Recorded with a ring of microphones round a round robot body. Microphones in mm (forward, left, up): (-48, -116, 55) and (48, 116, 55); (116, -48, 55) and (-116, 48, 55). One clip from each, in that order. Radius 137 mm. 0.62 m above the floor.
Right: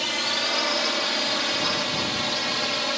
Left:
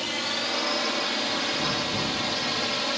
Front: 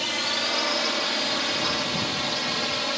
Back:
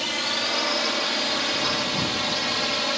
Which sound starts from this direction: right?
A drone, at 0.0 s.